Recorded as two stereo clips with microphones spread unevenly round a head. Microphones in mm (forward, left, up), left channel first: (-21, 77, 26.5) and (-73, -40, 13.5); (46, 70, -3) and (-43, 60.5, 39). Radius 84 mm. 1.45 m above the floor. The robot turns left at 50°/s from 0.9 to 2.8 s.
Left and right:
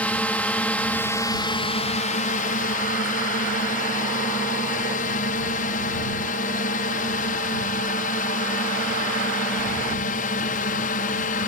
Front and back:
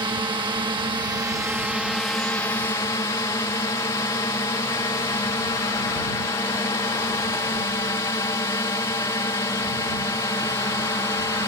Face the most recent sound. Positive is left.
turn(degrees=50)